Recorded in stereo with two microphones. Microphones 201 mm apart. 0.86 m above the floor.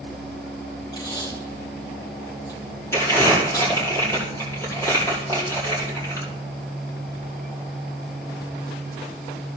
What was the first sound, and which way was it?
Tape being pulled, 20° left (ahead or behind).